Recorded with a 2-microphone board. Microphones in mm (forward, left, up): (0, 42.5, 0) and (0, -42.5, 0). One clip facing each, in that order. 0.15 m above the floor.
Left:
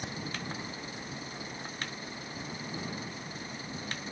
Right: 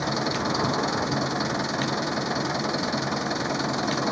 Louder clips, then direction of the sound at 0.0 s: Right 13 dB; 80° right.